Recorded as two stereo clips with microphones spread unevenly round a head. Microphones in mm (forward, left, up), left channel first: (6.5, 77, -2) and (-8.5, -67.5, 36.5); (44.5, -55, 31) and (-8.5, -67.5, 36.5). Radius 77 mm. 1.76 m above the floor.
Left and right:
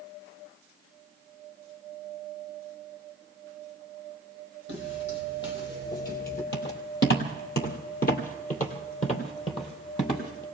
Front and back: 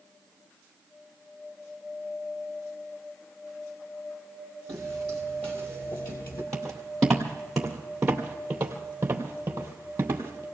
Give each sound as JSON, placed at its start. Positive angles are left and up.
{"t": 4.7, "sound": "footsteps", "azimuth_deg": 80, "distance_m": 4.0}
{"t": 6.5, "sound": "footsteps", "azimuth_deg": 95, "distance_m": 2.5}